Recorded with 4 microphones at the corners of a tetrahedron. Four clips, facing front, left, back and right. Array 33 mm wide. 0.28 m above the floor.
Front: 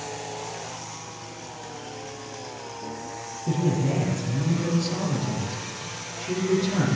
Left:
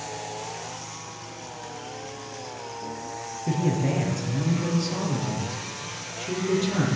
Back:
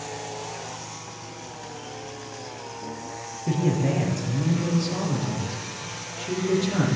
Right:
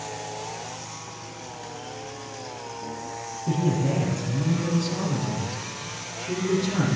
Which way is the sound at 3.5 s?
135° left.